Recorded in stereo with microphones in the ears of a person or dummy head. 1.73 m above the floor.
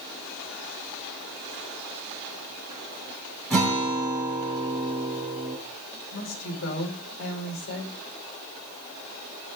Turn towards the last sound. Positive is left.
turn(degrees=65)  # may be behind; listen again after turning